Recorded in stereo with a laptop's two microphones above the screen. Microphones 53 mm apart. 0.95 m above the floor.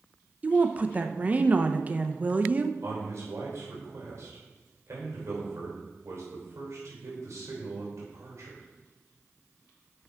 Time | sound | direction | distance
0.4 | a woman speaking | 30° right (ahead or behind) | 0.5 m
2.8 | a man speaking | 60° right (ahead or behind) | 3 m